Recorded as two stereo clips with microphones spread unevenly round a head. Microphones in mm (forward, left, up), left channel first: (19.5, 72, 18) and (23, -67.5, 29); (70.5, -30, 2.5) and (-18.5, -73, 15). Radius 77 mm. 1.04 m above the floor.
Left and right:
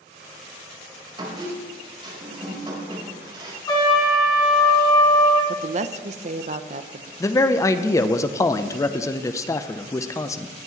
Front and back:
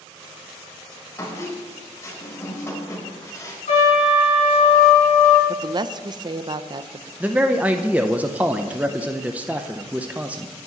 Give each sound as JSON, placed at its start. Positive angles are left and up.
{"t": 1.2, "sound": "a squeak", "azimuth_deg": -35, "distance_m": 4.0}
{"t": 3.7, "sound": "a trumpet", "azimuth_deg": 30, "distance_m": 3.5}
{"t": 5.5, "sound": "a woman speaking", "azimuth_deg": -115, "distance_m": 0.7}
{"t": 7.2, "sound": "a man speaking", "azimuth_deg": 125, "distance_m": 0.7}